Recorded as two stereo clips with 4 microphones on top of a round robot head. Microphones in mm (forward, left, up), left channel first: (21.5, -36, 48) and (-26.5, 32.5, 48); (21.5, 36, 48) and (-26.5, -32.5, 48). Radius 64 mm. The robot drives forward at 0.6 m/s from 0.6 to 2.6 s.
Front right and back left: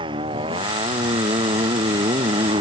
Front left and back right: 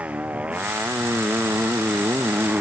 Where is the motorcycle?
160° left.